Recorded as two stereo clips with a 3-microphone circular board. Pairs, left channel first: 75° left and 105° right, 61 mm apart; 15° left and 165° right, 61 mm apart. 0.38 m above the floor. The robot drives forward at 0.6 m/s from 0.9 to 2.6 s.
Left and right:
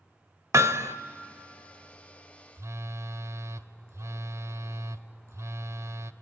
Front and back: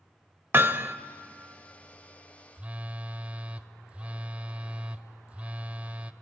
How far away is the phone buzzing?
About 0.7 m.